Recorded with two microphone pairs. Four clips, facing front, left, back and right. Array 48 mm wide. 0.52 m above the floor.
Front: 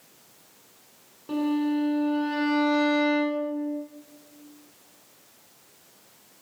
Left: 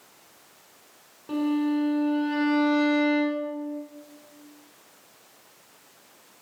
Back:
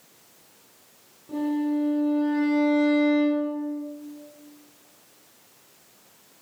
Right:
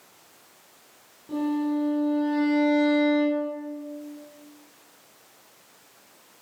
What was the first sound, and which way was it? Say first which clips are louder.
A violin: left 1 dB, even; 40° left.